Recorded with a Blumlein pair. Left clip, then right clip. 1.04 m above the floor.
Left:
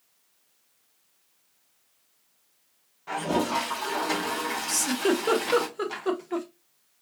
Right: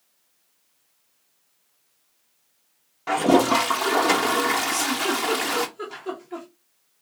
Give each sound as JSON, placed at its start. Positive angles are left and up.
{"t": 3.1, "sound": "a toilet flushing", "azimuth_deg": -55, "distance_m": 0.7}
{"t": 4.7, "sound": "a giggle", "azimuth_deg": 30, "distance_m": 1.3}